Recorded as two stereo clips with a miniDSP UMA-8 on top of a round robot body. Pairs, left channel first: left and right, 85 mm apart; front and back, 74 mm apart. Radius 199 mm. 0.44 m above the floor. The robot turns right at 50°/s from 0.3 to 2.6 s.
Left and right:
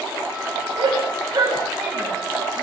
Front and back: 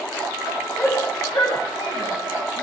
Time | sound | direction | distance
0.8 | a shout | 70° right | 5 m